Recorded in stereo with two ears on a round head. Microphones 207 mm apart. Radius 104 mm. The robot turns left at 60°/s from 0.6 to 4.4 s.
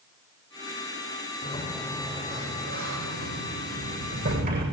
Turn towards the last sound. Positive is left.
turn(degrees=-140)